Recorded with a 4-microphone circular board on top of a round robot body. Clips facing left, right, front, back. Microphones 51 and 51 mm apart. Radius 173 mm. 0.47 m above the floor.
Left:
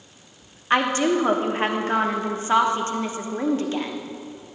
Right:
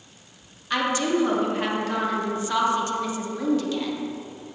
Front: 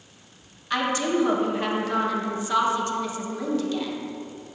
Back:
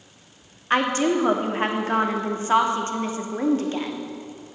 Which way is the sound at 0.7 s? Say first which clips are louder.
Left 3 dB, back 3 dB; 135° left.